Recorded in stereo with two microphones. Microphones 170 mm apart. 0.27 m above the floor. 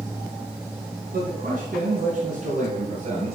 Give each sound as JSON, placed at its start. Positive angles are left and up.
{"t": 1.1, "sound": "a man speaking", "side_deg": -60, "distance_m": 3.0}